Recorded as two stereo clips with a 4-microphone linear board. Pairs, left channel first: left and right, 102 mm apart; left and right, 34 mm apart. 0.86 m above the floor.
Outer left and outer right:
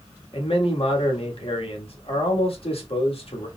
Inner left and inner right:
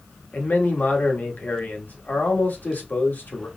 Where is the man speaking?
65° left (ahead or behind), 1.4 m.